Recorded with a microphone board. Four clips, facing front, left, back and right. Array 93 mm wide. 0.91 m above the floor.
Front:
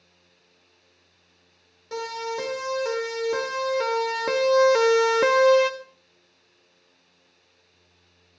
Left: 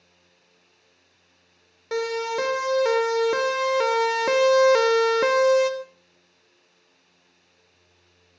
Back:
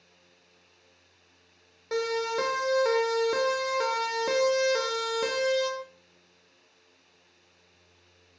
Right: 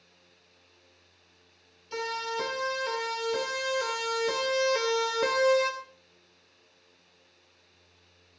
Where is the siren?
115° left, 5.5 m; by 5.7 s 10° left, 2 m.